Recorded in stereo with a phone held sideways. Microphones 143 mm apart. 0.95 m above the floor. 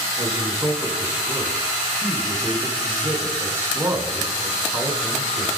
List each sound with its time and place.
0.2 s a man speaking: 20° right (ahead or behind), 4.5 m